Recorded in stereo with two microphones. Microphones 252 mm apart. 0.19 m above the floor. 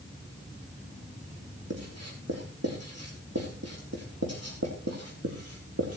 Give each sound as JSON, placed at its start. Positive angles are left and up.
{"t": 1.7, "sound": "writing", "side_deg": -75, "distance_m": 5.0}